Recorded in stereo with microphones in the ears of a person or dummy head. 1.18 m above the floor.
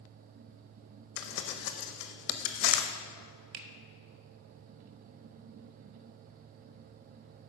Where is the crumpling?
65° left (ahead or behind), 0.7 m.